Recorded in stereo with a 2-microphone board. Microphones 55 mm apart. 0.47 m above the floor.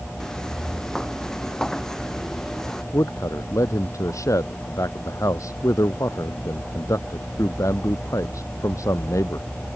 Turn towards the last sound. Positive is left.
turn(degrees=70)  # may be behind; listen again after turning